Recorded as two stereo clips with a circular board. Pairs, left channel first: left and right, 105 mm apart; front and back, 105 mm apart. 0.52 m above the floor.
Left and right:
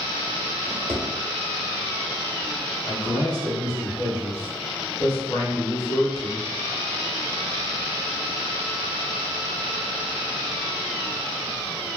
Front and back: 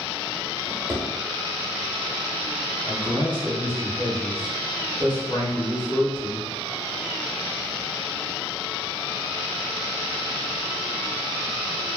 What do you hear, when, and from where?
0.7 s a drawer: 105° right, 0.9 m
2.9 s a man speaking: 45° left, 1.4 m